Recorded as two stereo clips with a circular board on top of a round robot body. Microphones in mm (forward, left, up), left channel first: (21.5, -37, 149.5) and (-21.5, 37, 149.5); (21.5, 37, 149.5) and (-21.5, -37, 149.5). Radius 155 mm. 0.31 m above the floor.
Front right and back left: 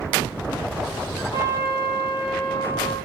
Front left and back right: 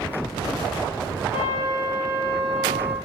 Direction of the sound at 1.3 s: 60° right.